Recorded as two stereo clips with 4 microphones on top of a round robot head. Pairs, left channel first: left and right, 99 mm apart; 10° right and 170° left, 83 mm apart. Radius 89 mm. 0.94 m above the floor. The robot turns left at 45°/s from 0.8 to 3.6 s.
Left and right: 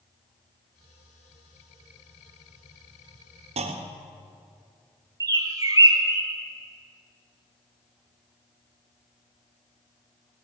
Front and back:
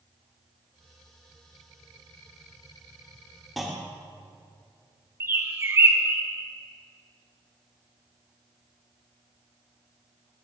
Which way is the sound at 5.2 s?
135° right.